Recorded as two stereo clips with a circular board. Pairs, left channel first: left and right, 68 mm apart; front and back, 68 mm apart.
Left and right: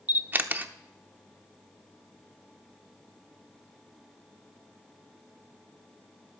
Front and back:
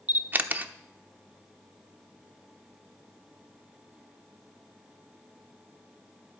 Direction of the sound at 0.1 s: 135° right.